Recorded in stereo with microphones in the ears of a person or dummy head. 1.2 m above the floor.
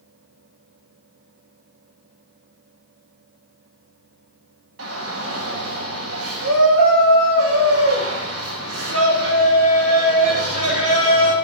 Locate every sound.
4.8 s a shout: 75° right (ahead or behind), 2.0 m